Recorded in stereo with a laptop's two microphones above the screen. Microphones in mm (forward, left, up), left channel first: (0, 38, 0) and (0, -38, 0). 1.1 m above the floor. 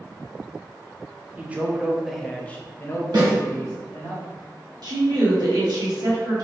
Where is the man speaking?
20° right (ahead or behind), 0.8 m; by 4.1 s 45° left (ahead or behind), 1.1 m.